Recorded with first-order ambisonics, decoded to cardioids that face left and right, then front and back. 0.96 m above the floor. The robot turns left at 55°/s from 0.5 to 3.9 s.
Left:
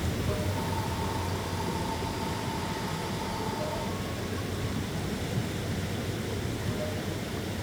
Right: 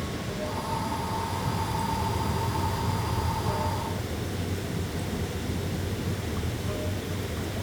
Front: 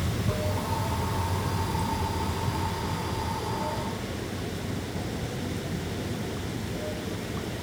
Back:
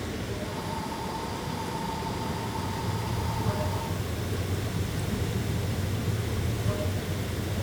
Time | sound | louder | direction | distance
0.0 | running water | even, front 3 dB | 25° left | 6 m